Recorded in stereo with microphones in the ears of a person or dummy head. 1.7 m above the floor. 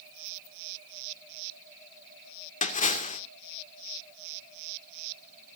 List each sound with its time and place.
2.6 s a splash: 35° left (ahead or behind), 2 m